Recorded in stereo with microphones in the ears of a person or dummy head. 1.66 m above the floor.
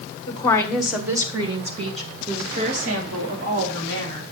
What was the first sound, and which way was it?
A woman speaking, 30° left (ahead or behind).